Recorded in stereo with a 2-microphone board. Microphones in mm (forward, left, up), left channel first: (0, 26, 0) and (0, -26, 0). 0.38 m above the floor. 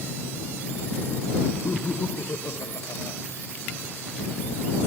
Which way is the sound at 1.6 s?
45° left (ahead or behind).